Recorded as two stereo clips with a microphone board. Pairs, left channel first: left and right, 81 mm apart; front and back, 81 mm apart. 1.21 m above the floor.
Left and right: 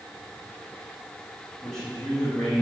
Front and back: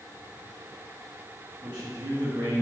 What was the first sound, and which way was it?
A man speaking, 175° left.